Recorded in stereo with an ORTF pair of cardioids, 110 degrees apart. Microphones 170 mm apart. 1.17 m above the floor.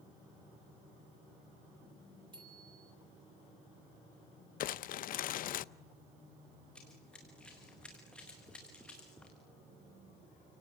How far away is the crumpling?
About 0.6 m.